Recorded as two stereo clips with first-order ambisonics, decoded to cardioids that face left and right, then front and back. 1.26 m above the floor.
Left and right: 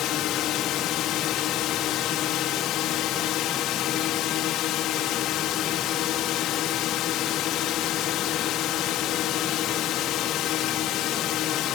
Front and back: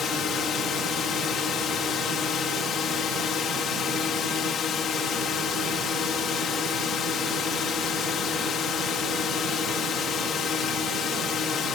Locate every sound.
0.0 s a drone: 55° left